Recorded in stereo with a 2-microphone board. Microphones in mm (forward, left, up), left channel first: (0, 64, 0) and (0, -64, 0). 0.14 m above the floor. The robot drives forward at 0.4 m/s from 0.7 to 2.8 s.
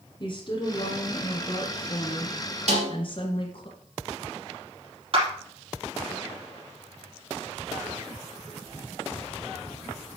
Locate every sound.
0.2 s a woman speaking: 45° left (ahead or behind), 2.5 m
2.7 s a snare drum: 65° right (ahead or behind), 2.5 m
5.1 s a clap: 45° right (ahead or behind), 4 m